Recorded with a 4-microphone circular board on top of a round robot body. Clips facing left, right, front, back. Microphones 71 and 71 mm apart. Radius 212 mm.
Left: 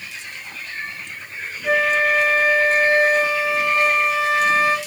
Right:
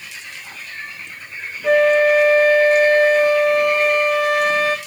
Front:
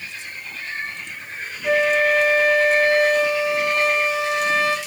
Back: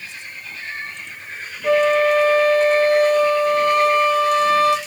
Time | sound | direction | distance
1.6 | a flute | 130° right | 1.8 m